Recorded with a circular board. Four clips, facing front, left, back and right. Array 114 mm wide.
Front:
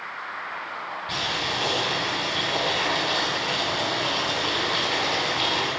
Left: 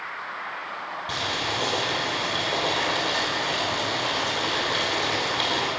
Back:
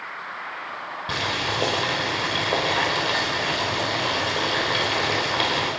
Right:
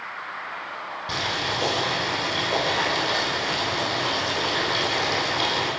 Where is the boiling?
170° right, 7 m.